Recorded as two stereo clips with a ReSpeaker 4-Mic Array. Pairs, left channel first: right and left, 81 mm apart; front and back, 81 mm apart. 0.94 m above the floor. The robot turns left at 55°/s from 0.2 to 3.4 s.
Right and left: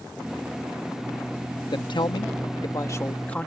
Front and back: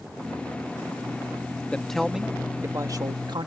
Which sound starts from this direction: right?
A man speaking, at 1.7 s.